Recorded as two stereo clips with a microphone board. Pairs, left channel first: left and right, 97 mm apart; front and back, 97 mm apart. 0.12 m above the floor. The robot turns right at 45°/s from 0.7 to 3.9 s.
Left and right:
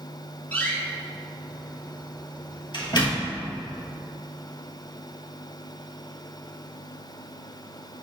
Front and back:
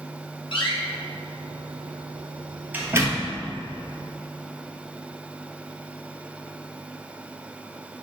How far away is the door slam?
About 2.5 m.